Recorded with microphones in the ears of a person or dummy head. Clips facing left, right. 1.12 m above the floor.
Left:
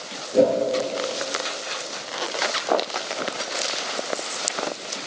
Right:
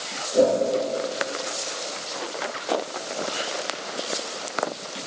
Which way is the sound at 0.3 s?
35° left (ahead or behind).